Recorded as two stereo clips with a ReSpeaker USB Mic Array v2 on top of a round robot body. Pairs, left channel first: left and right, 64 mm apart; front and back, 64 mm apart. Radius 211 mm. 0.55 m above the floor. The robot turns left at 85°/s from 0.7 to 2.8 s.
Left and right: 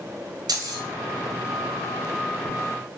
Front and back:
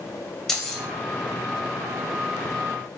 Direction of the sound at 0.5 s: 85° right.